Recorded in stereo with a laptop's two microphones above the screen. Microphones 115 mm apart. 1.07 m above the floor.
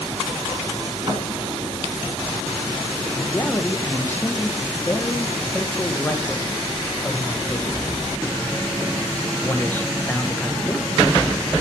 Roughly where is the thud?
Right.